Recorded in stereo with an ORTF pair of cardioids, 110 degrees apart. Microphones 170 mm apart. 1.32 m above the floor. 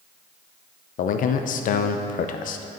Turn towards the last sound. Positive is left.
turn(degrees=50)